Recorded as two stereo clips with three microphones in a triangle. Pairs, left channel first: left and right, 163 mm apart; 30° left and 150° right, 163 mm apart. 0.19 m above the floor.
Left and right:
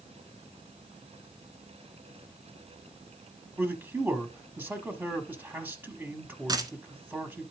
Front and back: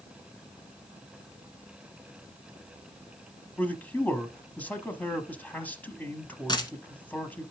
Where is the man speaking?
35° right, 1.1 m.